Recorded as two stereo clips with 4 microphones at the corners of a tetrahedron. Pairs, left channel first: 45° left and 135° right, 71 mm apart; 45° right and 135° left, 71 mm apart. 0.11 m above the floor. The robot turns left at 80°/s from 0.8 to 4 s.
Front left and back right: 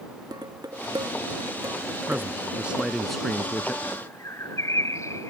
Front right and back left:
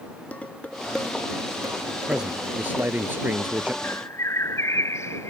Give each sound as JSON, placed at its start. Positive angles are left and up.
{"t": 0.3, "sound": "dishes clattering", "azimuth_deg": -115}
{"t": 2.1, "sound": "a man speaking", "azimuth_deg": -150}
{"t": 3.8, "sound": "a bird", "azimuth_deg": 15}